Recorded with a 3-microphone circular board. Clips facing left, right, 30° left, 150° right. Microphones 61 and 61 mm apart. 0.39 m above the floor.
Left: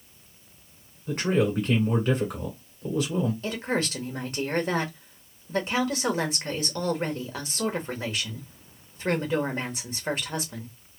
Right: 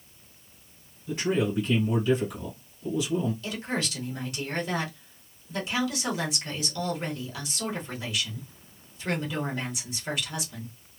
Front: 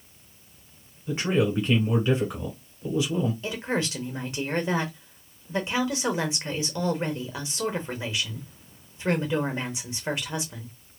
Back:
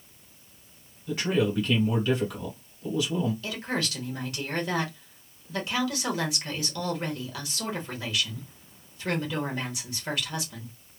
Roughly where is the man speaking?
Left.